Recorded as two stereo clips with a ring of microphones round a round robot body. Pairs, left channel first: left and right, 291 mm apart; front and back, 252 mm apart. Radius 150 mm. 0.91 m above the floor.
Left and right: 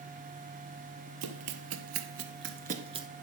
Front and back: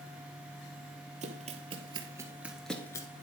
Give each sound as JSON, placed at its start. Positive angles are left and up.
{"t": 1.2, "sound": "running footsteps", "azimuth_deg": -115, "distance_m": 1.5}